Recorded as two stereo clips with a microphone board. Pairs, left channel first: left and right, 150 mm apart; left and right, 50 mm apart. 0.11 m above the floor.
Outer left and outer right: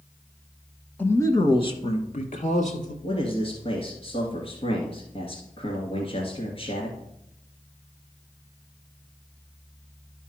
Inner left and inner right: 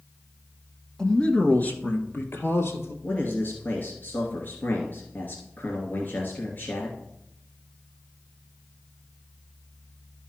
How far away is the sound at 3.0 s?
About 2 m.